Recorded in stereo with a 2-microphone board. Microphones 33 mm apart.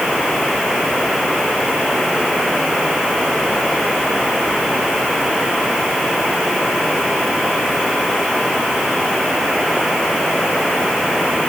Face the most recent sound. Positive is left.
No sound to turn to.